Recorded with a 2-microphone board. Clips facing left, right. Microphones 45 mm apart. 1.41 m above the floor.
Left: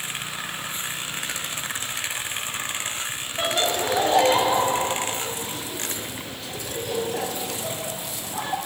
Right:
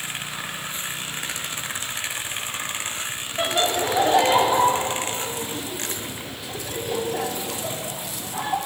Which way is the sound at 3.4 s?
10° right (ahead or behind).